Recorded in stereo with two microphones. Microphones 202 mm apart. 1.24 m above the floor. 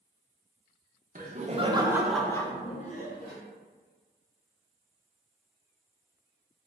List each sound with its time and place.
1.1 s laughter: 45° right (ahead or behind), 0.8 m; by 3.4 s 55° left (ahead or behind), 0.9 m